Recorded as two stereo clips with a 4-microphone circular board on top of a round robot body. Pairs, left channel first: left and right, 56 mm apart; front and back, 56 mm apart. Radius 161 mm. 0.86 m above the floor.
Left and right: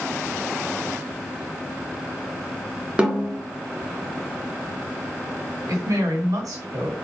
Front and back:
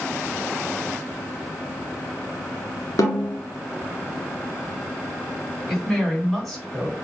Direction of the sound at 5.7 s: 90° right.